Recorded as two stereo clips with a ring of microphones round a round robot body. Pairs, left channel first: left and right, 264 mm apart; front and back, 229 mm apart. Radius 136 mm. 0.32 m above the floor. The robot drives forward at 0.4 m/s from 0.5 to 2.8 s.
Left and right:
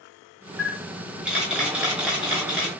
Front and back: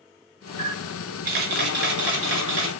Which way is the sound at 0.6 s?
170° right.